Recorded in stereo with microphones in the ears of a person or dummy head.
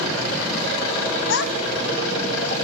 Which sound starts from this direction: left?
A child speaking, at 1.3 s.